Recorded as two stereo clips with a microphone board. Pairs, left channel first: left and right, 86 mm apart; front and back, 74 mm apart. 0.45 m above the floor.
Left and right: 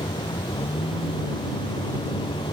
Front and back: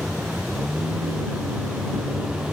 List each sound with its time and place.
0.0 s a vehicle: 100° left